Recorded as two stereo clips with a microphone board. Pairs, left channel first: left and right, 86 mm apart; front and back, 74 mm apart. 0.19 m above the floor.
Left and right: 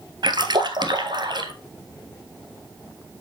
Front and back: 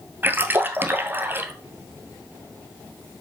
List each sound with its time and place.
0.2 s a splash: 120° right, 1.3 m